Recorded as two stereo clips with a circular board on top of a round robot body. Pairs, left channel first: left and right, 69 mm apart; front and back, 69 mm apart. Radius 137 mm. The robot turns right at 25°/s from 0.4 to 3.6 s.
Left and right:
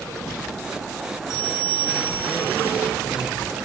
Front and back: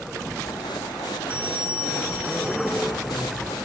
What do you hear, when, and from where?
1.3 s a bell: 110° right, 6 m; by 2.9 s 70° right, 6 m